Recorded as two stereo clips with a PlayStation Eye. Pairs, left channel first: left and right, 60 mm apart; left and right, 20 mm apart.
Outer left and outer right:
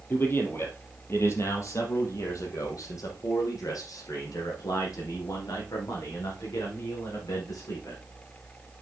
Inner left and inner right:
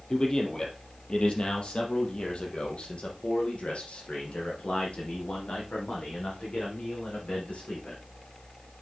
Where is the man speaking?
35° left (ahead or behind), 3.5 m; by 8.0 s 80° left, 7 m.